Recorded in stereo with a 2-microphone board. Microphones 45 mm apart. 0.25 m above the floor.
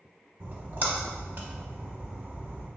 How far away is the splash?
About 0.7 m.